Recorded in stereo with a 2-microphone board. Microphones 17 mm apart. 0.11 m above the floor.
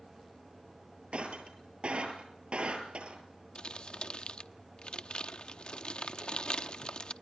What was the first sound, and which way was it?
Breaking glass, 80° right.